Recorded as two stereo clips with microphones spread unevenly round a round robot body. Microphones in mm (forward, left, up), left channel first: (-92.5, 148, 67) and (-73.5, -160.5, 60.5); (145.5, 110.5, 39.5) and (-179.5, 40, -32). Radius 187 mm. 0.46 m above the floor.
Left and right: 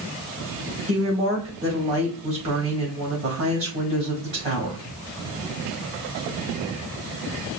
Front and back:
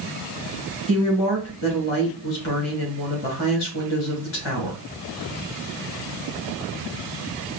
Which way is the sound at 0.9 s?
15° right.